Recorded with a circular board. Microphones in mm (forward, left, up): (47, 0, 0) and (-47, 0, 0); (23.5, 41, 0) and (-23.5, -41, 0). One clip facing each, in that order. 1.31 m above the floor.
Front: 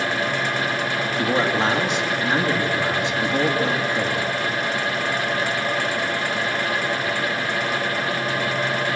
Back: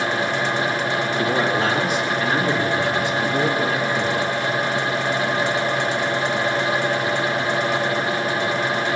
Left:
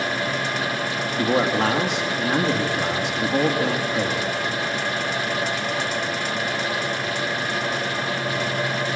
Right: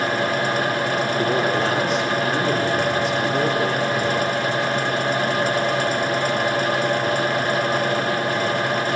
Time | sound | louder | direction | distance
1.2 | a man speaking | front 1 dB, left 3 dB | 70° left | 2 m